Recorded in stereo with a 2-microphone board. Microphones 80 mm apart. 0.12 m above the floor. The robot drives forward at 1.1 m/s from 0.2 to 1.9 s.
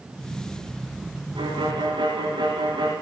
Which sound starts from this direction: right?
A violin, at 1.4 s.